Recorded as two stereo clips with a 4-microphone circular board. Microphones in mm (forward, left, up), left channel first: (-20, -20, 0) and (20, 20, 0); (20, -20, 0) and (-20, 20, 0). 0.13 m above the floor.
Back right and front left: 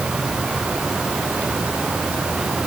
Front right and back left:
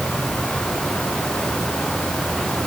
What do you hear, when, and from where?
Only background noise.